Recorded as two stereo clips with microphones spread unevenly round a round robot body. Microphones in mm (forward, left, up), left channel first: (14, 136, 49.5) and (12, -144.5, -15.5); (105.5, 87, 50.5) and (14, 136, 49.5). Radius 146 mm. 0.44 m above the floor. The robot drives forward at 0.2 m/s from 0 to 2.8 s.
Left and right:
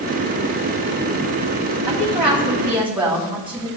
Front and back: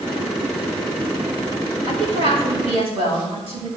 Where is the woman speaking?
170° right, 2.5 m.